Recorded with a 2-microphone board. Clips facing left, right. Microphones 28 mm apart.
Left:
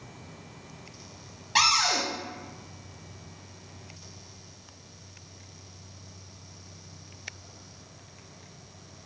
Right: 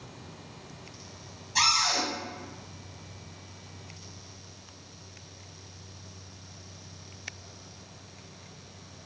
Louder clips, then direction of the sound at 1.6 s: Left 2 dB; 60° left (ahead or behind).